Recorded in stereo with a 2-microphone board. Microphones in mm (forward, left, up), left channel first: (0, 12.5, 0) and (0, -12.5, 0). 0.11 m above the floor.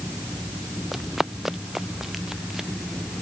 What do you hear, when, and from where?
0.9 s running footsteps: 15° right (ahead or behind); by 2.7 s 20° right (ahead or behind)